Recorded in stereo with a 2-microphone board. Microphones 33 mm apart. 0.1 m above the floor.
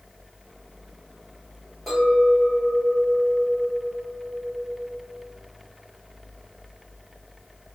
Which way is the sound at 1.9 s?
Centre (ahead or behind).